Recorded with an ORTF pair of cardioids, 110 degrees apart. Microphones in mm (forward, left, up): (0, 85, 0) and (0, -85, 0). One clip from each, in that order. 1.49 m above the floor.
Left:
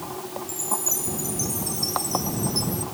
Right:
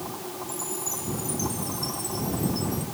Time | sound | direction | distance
0.5 | a chime | 40° left | ?